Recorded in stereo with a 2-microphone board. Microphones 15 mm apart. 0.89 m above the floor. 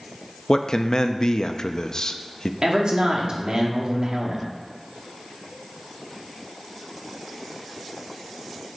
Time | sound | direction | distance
0.5 | a man speaking | 40° left (ahead or behind) | 0.7 m
2.6 | a man speaking | 55° right (ahead or behind) | 2 m